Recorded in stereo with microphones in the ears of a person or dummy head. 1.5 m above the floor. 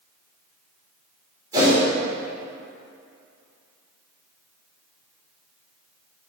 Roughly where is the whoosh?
Right.